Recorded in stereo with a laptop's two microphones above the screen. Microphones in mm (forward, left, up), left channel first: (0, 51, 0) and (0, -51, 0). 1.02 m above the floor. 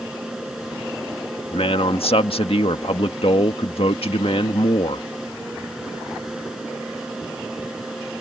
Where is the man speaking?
70° left (ahead or behind).